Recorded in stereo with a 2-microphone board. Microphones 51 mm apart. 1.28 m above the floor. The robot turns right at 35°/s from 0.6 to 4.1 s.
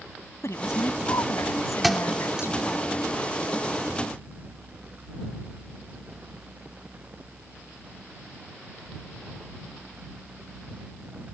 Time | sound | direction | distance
0.4 | a woman speaking | 65° left | ?
1.8 | a thud | centre (ahead or behind) | ?